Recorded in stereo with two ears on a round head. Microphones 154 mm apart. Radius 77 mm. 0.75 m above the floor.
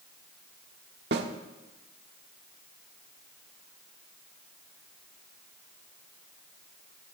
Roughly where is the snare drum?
Right.